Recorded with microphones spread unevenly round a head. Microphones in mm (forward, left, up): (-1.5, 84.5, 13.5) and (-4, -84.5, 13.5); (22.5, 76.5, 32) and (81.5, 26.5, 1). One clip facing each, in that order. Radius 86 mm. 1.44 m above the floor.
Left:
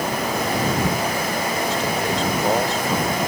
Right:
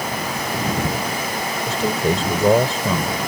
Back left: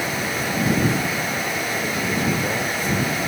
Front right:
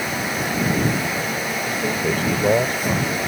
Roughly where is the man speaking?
Right.